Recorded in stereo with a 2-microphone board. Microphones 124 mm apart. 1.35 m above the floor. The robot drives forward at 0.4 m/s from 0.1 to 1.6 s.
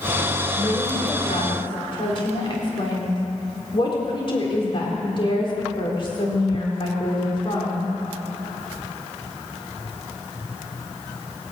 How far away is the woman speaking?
About 4 m.